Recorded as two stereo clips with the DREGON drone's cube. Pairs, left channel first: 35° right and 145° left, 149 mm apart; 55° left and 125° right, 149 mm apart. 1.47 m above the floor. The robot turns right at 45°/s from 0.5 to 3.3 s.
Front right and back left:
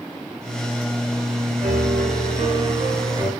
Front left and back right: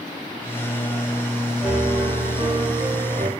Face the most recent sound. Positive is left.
turn(degrees=-140)